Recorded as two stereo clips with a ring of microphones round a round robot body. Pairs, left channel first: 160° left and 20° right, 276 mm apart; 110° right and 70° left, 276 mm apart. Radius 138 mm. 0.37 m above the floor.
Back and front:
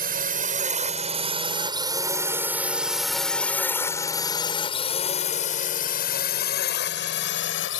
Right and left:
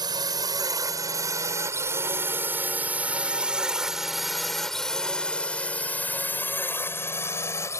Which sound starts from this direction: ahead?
A drone, at 0.0 s.